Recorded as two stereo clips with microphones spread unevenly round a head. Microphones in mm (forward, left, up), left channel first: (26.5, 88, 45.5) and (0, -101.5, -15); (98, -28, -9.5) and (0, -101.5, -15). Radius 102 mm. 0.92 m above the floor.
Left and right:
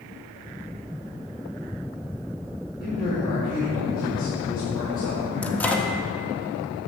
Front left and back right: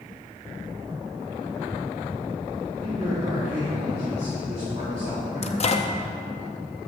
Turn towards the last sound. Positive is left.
turn(degrees=-5)